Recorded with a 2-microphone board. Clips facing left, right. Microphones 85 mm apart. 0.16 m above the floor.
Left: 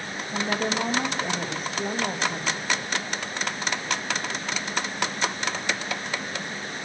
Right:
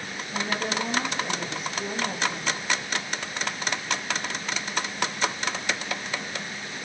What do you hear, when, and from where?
0.3 s a woman speaking: 35° left (ahead or behind), 5 m